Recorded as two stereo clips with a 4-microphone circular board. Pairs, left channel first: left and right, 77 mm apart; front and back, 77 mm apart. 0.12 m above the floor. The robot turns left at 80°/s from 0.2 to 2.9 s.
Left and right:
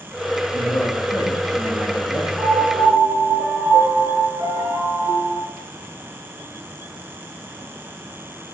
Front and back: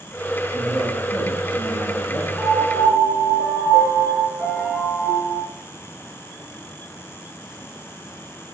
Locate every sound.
0.5 s a man speaking: 95° left, 8 m; by 2.3 s 45° right, 8 m
2.4 s a piano: 55° right, 7 m; by 5.4 s 95° right, 7 m